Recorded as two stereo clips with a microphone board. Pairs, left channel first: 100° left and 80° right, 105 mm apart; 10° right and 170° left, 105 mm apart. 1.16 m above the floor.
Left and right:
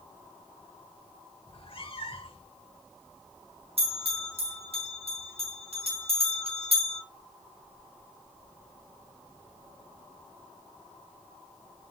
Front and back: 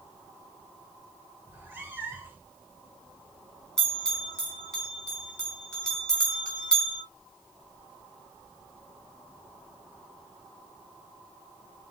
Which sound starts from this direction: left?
A cat meowing, at 1.5 s.